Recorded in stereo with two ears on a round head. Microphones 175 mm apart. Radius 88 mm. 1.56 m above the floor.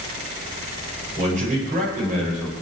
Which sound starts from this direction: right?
A man speaking, at 1.2 s.